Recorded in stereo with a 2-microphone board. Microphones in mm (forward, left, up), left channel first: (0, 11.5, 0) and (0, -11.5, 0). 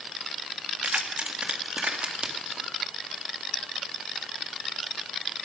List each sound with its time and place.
0.8 s keys jangling: 80° right, 1.6 m; by 2.7 s 40° right (ahead or behind), 2 m